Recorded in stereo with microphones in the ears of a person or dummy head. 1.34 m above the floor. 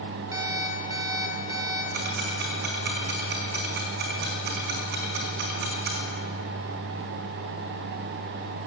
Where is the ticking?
45° right (ahead or behind), 1.7 m.